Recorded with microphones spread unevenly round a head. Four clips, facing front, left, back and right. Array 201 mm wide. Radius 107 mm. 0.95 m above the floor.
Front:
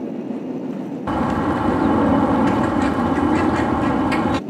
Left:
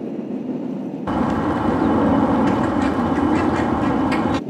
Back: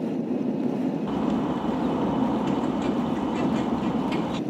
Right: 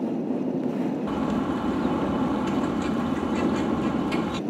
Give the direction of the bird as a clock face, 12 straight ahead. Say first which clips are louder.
Left 6 dB, front 5 dB; 11 o'clock.